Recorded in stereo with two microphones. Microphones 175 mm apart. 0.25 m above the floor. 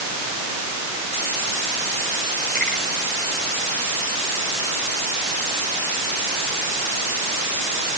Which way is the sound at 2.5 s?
60° right (ahead or behind).